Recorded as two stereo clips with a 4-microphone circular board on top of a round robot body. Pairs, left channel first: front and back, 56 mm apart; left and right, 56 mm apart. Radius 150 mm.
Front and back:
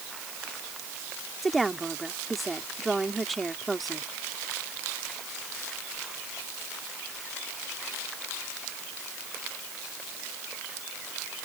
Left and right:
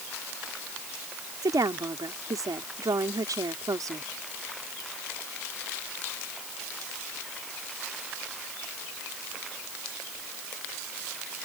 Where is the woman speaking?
90° right.